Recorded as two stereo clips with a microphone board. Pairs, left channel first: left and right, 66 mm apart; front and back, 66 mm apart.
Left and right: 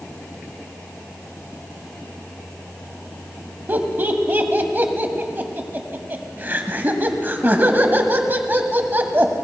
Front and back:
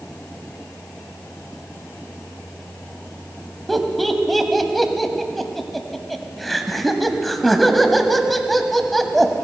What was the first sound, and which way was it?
Laughter, 85° right.